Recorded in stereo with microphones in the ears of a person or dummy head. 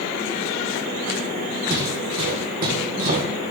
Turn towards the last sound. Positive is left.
turn(degrees=-45)  # may be behind; listen again after turning